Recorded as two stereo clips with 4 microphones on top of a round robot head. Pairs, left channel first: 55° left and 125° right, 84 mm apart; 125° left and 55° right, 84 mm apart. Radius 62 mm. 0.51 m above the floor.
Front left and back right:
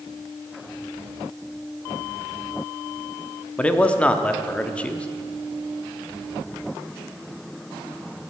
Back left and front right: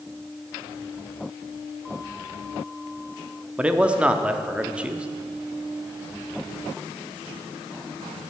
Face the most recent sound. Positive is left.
turn(degrees=5)